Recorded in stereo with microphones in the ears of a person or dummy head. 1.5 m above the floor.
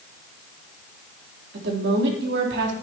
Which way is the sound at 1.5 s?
75° right (ahead or behind).